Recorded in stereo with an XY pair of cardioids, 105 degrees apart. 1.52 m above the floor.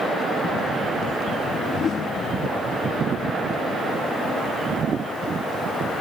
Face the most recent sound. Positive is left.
turn(degrees=60)